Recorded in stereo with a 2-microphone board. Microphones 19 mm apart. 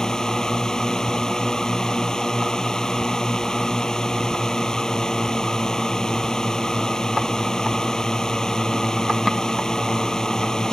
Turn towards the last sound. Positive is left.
turn(degrees=30)  # may be behind; listen again after turning